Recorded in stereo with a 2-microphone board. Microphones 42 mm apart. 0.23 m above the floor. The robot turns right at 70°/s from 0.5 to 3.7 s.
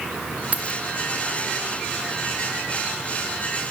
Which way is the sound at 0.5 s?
40° right (ahead or behind).